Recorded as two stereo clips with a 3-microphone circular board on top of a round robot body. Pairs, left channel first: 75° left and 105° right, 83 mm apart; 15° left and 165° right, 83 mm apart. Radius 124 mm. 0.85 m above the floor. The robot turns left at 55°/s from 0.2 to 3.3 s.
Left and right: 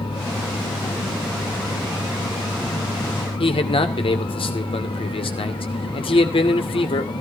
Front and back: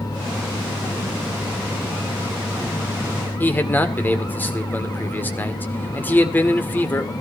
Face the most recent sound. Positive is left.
turn(degrees=85)